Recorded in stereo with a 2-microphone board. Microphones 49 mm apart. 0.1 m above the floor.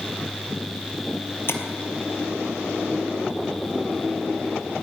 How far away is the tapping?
About 1.5 m.